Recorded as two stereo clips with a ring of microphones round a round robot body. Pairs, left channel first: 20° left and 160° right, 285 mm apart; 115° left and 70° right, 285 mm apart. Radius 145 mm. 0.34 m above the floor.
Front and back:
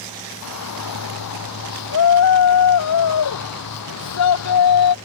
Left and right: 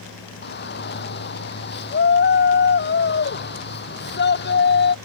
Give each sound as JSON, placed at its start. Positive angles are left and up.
{"t": 0.4, "sound": "a shout", "azimuth_deg": 60}